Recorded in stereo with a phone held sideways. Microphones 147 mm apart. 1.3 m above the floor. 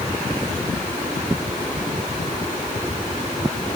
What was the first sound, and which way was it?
Only background noise.